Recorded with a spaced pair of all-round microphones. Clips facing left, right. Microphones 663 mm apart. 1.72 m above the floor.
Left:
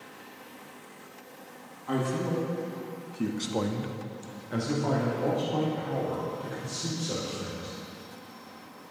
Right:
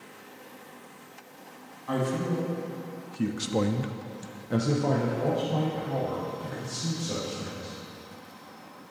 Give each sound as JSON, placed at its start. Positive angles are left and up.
{"t": 1.9, "sound": "a man speaking", "side_deg": -5, "distance_m": 1.2}